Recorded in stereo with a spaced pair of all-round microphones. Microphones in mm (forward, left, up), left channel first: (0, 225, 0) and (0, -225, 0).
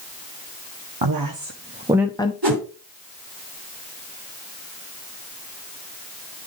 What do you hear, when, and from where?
1.0 s a woman speaking: 55° right (ahead or behind), 0.9 m; by 2.3 s 15° left (ahead or behind), 0.7 m
2.4 s a whoosh: 55° right (ahead or behind), 3 m